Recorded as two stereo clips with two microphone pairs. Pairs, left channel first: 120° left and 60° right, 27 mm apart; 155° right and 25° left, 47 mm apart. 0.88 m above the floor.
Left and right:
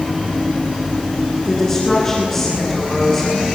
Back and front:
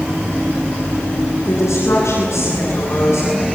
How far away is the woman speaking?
About 9.5 m.